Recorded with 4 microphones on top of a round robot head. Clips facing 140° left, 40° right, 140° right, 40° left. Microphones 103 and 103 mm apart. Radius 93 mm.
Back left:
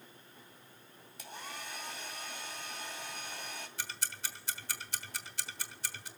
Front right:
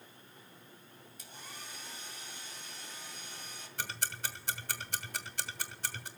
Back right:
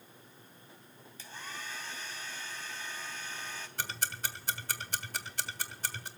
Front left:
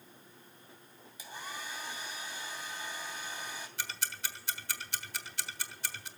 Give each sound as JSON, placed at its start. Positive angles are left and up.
{"t": 1.2, "sound": "a hair dryer", "azimuth_deg": 120, "distance_m": 2.5}
{"t": 3.8, "sound": "ticking", "azimuth_deg": -90, "distance_m": 1.2}